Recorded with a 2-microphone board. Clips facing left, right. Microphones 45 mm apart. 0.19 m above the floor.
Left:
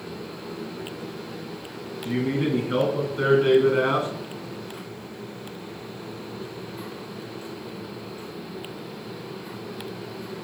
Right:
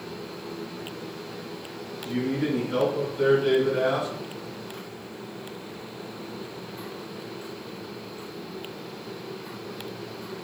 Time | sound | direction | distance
2.0 | a man speaking | 65° left (ahead or behind) | 2.5 m